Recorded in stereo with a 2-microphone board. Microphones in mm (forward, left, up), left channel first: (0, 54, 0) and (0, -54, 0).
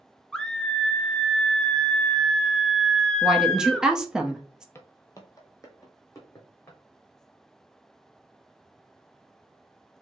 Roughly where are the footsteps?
Left.